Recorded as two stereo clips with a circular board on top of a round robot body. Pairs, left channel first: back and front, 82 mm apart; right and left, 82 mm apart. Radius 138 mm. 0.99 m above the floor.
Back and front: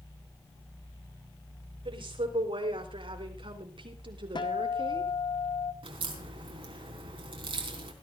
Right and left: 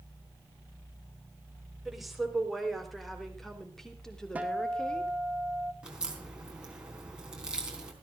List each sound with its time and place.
1.9 s a woman speaking: 5° left, 4.5 m; by 5.1 s 10° right, 3 m
4.3 s a guitar: 160° left, 2.0 m
5.8 s a crack: 10° left, 3.5 m